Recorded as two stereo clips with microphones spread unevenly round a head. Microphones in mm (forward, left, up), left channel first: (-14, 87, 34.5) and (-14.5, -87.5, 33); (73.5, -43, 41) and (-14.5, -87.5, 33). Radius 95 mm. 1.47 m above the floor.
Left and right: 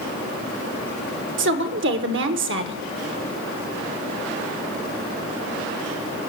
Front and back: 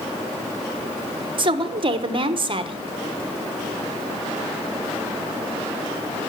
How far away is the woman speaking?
About 1.1 m.